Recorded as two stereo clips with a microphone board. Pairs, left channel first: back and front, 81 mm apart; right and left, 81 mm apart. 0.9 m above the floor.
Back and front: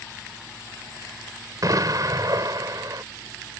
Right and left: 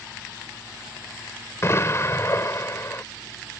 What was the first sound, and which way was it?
An explosion, 35° right.